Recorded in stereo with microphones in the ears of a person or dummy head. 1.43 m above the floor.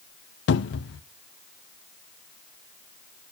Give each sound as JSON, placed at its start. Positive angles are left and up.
{"t": 0.5, "sound": "a cupboard door", "side_deg": 60, "distance_m": 0.6}